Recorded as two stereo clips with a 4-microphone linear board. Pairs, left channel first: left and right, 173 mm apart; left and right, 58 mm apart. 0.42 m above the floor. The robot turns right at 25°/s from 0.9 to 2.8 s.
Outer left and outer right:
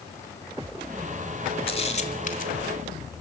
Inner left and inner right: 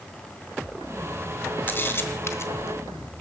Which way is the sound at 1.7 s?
35° left (ahead or behind).